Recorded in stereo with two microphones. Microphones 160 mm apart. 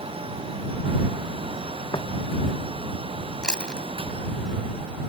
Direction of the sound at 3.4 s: 5° left (ahead or behind).